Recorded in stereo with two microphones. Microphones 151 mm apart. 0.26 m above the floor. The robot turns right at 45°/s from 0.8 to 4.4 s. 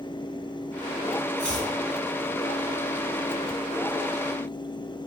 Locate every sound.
1.4 s chopping: 10° left (ahead or behind), 1.2 m; by 1.7 s 5° right (ahead or behind), 1.2 m